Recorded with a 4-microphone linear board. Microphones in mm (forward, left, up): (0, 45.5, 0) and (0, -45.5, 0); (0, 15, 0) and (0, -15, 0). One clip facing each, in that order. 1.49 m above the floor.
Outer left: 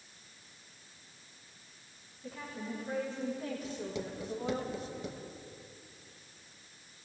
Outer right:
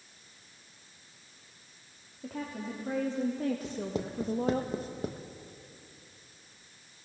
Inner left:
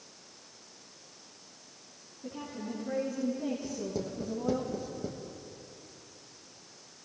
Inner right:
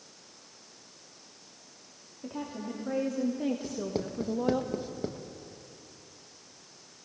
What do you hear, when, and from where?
2.2 s a woman speaking: 85° right, 3 m; by 4.6 s 60° right (ahead or behind), 1.3 m
3.6 s writing: 40° right (ahead or behind), 1.2 m